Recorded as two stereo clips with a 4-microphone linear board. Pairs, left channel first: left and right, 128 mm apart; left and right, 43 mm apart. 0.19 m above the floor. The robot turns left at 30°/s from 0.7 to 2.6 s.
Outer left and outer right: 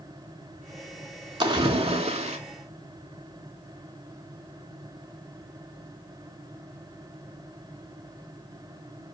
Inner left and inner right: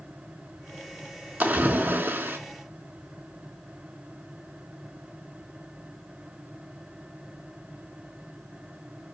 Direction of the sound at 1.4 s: 40° right (ahead or behind).